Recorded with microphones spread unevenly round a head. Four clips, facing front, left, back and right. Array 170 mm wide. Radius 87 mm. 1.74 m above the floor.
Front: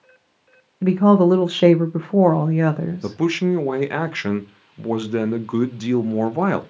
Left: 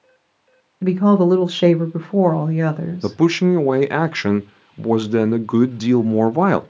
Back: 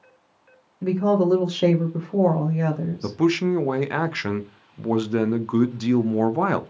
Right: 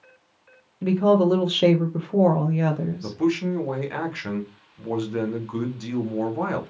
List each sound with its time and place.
0.8 s a woman speaking: 25° left, 0.6 m
3.0 s a man speaking: 75° left, 0.5 m